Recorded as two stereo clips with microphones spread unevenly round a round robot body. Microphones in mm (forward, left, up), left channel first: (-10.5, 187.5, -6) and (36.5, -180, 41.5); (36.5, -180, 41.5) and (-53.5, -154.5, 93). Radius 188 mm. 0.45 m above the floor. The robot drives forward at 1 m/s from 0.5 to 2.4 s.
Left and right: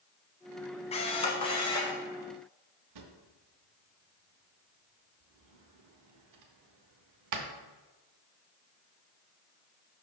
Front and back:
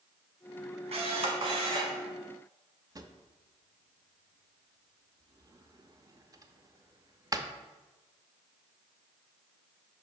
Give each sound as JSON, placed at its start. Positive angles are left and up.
{"t": 0.9, "sound": "a camera shutter", "azimuth_deg": 175, "distance_m": 0.8}
{"t": 3.0, "sound": "a drawer", "azimuth_deg": -125, "distance_m": 0.8}